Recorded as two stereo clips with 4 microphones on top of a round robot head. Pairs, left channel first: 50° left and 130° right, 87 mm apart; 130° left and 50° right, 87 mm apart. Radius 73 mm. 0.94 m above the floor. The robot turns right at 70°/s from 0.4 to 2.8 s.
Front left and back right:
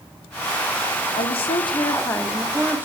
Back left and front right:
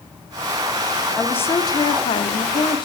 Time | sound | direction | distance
1.2 | a woman speaking | 45° left | 2 m